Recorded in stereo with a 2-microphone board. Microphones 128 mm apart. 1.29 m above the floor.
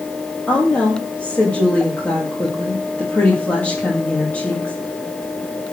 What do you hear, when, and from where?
0.5 s a woman speaking: 10° left (ahead or behind), 2.5 m